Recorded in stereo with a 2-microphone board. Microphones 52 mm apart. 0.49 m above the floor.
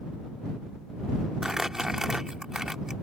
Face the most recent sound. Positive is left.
turn(degrees=-10)  # may be behind; listen again after turning